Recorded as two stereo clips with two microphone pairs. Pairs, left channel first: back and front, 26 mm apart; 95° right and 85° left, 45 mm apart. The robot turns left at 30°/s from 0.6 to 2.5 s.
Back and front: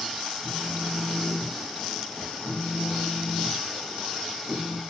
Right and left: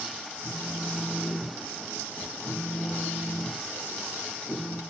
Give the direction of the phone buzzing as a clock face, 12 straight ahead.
1 o'clock.